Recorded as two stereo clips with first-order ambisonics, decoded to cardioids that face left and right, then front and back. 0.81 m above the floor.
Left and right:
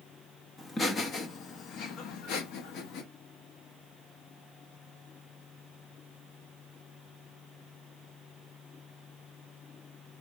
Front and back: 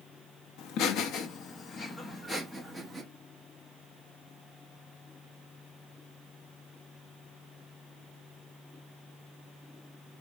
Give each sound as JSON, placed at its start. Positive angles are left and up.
{"t": 0.6, "sound": "laughter", "azimuth_deg": 15, "distance_m": 1.0}